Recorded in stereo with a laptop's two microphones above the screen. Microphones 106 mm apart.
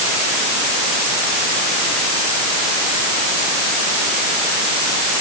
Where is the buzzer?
I don't hear a buzzer.